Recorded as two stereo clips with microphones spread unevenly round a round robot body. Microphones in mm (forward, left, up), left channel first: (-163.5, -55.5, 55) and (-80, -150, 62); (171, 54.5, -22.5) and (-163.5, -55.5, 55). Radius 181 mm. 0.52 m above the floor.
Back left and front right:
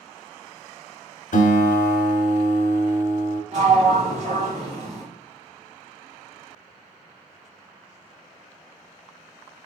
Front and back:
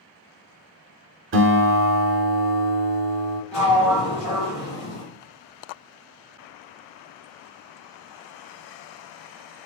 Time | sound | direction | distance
1.3 | a guitar | 135° left | 0.6 m
3.5 | a sliding door | 45° right | 1.9 m